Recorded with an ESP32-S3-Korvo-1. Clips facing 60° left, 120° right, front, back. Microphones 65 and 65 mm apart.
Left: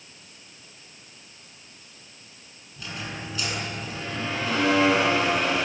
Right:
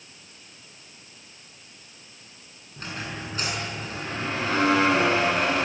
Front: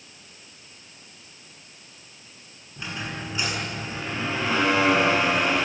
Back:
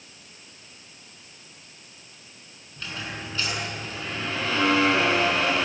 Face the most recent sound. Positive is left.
turn(degrees=-70)